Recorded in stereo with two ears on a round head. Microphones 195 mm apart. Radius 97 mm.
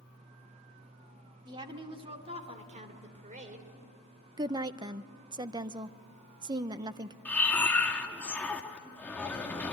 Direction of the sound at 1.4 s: 20° right (ahead or behind).